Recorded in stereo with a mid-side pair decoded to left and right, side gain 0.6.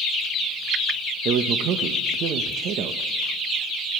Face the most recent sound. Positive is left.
turn(degrees=-60)